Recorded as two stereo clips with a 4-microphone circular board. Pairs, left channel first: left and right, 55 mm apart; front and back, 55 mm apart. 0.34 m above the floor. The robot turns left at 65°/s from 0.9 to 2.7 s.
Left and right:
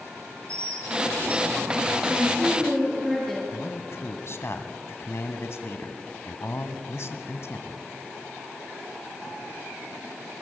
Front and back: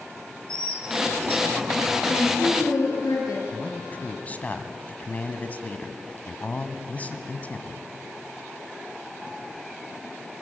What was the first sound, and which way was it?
A bird, 160° left.